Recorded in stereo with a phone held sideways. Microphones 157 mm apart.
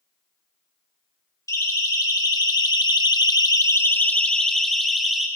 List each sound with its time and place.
1.5 s a siren: 20° left (ahead or behind), 3 m; by 5.3 s centre (ahead or behind), 3 m